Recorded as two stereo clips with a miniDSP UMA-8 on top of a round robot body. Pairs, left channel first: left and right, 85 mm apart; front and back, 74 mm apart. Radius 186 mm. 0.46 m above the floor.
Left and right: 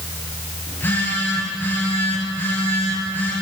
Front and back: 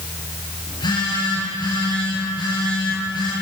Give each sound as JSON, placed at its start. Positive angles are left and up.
{"t": 0.7, "sound": "a phone buzzing", "azimuth_deg": 20, "distance_m": 6.5}